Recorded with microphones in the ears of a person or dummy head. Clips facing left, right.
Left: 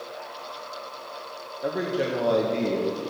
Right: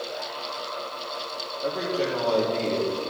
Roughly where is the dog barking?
No dog barking in this recording.